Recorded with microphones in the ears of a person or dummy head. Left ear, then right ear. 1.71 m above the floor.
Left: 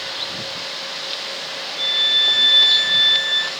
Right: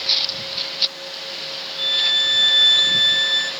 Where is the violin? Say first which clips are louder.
Left 1 dB; centre (ahead or behind), 0.5 m.